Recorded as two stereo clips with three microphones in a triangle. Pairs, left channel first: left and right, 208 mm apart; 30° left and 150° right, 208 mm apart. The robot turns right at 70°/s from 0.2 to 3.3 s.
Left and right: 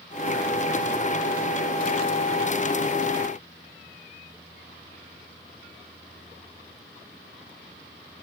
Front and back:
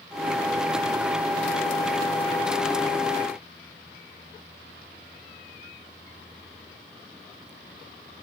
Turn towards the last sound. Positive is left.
No sound to turn to.